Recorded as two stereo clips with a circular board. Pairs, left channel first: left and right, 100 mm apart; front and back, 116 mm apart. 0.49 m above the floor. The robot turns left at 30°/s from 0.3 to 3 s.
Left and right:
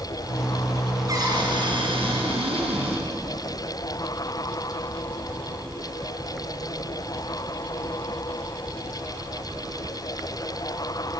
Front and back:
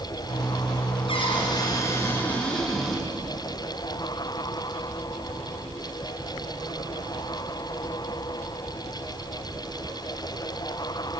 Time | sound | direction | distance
1.1 | a cupboard door | 40° right | 5.5 m